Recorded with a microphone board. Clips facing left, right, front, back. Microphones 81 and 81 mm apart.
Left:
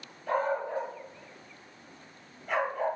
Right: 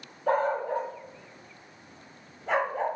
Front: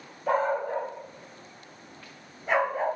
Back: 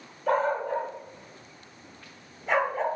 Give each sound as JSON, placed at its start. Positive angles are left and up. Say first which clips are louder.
{"t": 0.3, "sound": "a dog barking", "louder": "right 4 dB, even", "azimuth_deg": -85, "distance_m": 7.0}